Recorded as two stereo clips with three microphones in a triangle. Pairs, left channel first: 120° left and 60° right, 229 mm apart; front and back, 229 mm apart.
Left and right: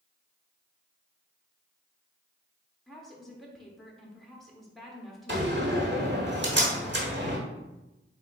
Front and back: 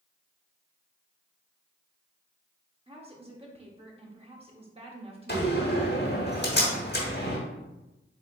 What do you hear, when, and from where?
2.9 s a woman speaking: 150° right, 1.0 m
5.3 s a door slam: 30° right, 1.2 m